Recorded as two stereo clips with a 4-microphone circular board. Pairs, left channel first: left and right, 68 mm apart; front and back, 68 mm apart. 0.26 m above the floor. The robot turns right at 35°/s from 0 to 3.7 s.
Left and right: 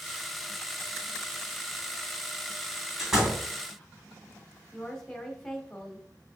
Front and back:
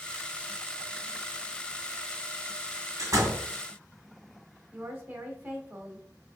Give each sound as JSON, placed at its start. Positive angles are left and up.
{"t": 3.0, "sound": "a door slam", "azimuth_deg": -170, "distance_m": 1.5}
{"t": 4.7, "sound": "a woman speaking", "azimuth_deg": 165, "distance_m": 1.0}